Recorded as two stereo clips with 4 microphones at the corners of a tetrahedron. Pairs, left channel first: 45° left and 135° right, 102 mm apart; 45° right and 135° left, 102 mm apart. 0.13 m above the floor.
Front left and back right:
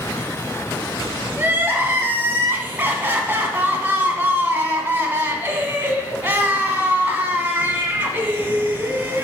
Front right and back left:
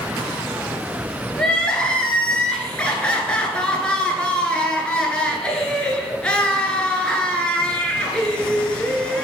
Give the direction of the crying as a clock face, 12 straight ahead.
4 o'clock.